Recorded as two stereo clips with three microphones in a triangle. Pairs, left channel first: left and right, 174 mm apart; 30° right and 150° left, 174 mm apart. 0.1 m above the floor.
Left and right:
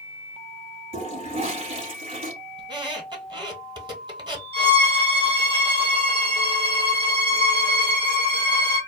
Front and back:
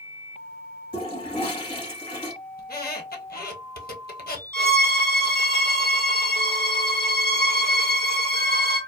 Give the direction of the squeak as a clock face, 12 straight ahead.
1 o'clock.